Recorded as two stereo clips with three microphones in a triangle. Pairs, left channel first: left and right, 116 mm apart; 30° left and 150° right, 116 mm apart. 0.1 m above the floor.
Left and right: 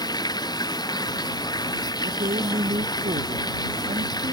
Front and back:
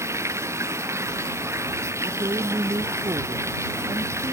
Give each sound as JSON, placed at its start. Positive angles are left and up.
{"t": 0.0, "sound": "running water", "azimuth_deg": 145}
{"t": 2.0, "sound": "a woman speaking", "azimuth_deg": -100}